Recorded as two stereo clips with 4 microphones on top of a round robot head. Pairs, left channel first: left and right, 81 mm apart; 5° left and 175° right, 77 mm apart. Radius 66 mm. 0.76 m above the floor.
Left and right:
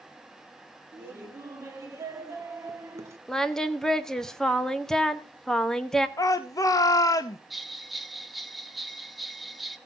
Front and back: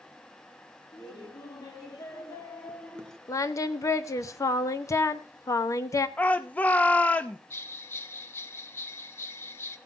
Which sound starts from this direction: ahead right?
Laughter, at 0.9 s.